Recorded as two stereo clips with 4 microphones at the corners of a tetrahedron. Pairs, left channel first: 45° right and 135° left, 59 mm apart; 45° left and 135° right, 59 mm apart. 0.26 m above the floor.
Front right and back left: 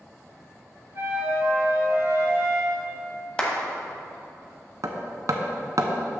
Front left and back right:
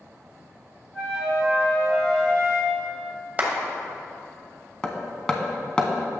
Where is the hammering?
120° left, 0.6 m.